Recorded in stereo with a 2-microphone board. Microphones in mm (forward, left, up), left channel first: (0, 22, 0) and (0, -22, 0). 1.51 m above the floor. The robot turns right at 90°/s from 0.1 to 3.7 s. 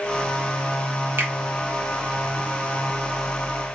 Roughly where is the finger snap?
Right.